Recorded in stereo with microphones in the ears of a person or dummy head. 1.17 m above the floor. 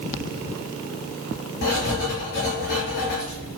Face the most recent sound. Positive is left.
turn(degrees=55)  # may be behind; listen again after turning